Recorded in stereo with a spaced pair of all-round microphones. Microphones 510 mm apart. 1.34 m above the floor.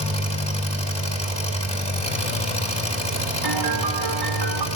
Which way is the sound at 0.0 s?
10° left (ahead or behind).